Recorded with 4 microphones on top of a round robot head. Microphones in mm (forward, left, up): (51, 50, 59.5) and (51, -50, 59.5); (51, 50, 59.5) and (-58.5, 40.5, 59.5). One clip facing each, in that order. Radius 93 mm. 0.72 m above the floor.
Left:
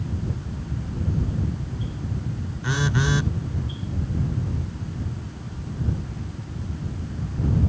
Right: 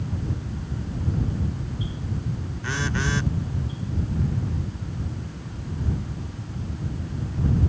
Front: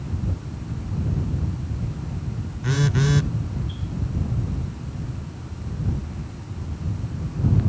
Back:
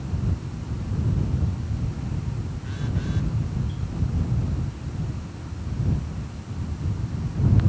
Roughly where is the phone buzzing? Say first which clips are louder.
Left 3 dB, front 10 dB; ahead.